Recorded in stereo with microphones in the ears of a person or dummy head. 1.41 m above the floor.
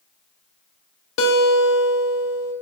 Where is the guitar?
80° left, 0.5 m.